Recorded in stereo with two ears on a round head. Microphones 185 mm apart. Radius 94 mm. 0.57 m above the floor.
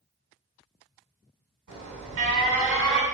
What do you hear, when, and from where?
1.7 s an alarm: 65° right (ahead or behind), 2 m